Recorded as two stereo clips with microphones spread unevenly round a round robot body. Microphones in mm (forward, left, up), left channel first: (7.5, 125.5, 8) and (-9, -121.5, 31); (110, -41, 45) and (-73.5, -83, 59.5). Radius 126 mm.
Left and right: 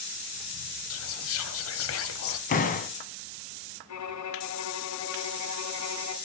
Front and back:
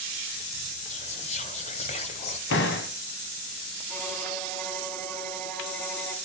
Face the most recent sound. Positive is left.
turn(degrees=100)